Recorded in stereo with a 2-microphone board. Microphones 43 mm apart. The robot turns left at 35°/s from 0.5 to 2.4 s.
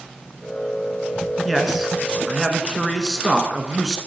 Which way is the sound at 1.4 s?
Centre (ahead or behind).